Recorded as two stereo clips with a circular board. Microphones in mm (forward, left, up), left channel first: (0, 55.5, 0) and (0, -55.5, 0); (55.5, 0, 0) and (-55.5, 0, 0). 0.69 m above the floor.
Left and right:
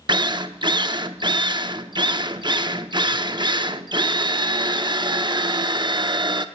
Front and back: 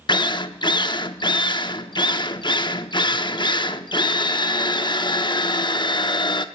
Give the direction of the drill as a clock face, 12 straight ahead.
2 o'clock.